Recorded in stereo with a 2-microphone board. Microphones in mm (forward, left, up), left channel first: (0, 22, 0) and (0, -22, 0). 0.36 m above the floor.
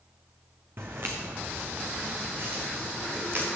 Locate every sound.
0.8 s footsteps: 50° right (ahead or behind), 1.6 m